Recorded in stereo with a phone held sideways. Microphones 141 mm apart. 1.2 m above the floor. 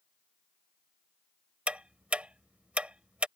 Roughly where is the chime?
I don't hear a chime.